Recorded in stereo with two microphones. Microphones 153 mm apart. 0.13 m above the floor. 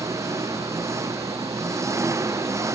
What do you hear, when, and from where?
0.0 s an engine running: 20° right (ahead or behind)